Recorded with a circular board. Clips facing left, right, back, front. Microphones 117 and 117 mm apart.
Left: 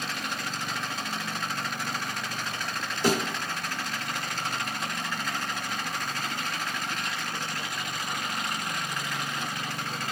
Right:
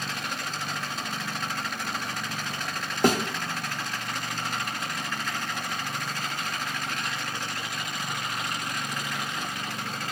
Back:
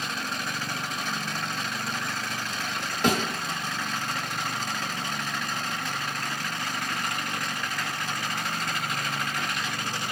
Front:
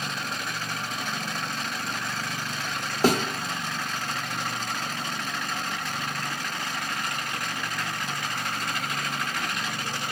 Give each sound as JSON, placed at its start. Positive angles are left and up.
{"t": 3.0, "sound": "a thud", "azimuth_deg": -55, "distance_m": 0.8}